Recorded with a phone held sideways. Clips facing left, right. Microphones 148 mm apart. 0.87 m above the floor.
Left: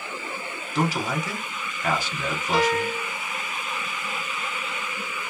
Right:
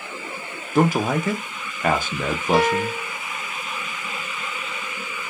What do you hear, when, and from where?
0.8 s a man speaking: 55° right (ahead or behind), 0.6 m
2.5 s a piano: 50° right (ahead or behind), 0.7 m